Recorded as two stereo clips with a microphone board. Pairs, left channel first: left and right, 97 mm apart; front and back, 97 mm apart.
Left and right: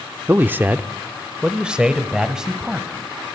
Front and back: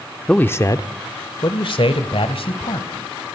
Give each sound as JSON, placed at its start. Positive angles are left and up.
{"t": 0.3, "sound": "a man speaking", "azimuth_deg": -70, "distance_m": 0.7}